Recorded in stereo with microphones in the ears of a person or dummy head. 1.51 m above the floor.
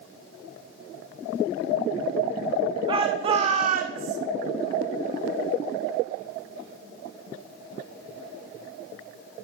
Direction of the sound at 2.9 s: 30° right (ahead or behind).